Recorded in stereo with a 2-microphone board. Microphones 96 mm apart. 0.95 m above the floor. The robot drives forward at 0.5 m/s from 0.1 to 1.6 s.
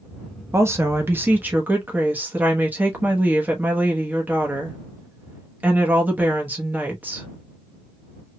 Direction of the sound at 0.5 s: 25° right (ahead or behind).